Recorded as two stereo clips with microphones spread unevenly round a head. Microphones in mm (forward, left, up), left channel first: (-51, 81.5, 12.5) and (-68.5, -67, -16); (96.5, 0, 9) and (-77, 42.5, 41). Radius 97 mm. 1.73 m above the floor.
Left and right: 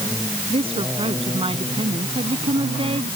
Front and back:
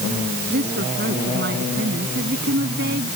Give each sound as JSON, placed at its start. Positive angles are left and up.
{"t": 0.5, "sound": "a woman speaking", "azimuth_deg": -150}